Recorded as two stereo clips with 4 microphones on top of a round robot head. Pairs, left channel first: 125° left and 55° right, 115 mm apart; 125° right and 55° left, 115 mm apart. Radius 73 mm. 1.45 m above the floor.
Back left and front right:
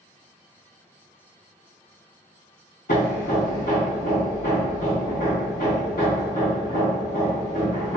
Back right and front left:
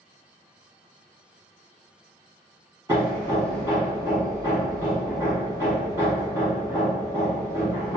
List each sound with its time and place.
2.9 s hammering: 115° left, 1.3 m